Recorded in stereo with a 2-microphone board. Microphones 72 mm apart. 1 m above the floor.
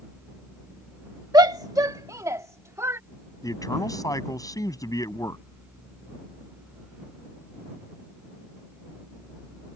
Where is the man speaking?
55° left (ahead or behind).